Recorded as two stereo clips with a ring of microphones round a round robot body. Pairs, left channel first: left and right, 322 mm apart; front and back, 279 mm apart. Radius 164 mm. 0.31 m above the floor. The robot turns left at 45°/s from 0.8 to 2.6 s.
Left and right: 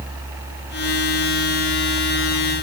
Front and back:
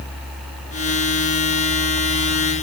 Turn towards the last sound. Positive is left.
No sound to turn to.